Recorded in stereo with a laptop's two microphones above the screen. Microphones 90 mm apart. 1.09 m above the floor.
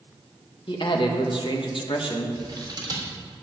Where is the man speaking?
65° left (ahead or behind), 1.6 m.